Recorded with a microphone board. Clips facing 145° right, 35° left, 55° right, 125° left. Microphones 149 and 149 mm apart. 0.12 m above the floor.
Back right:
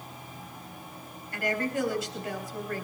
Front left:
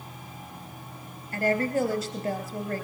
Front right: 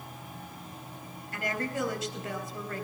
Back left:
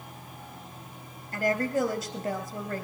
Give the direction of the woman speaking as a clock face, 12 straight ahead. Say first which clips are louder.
Front left 5 dB, back left 6 dB; 9 o'clock.